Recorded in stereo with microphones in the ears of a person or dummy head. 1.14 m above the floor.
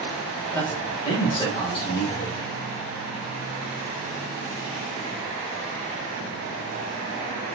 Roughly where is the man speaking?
Centre.